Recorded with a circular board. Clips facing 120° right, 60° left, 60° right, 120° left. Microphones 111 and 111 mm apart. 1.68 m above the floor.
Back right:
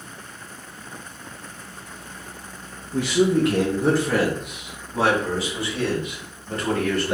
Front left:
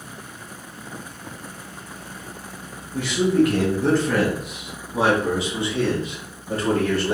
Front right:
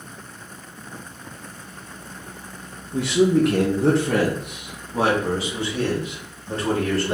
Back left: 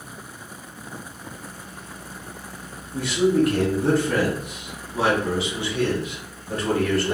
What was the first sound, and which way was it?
A man speaking, 75° right.